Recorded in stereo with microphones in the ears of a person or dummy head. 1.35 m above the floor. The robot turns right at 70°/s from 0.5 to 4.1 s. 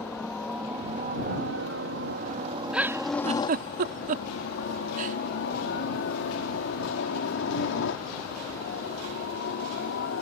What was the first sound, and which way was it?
A helicopter, centre (ahead or behind).